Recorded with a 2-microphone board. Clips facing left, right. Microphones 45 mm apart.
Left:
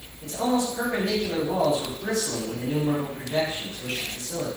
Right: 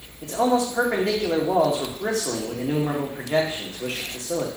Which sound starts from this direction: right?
A man speaking, at 0.2 s.